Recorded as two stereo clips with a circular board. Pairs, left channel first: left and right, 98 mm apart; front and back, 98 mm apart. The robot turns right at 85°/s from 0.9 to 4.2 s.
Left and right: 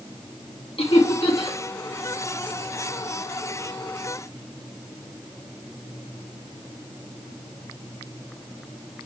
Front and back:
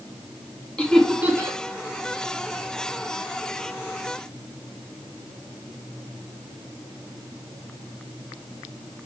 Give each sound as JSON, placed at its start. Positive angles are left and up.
{"t": 0.8, "sound": "laughter", "azimuth_deg": 80, "distance_m": 2.0}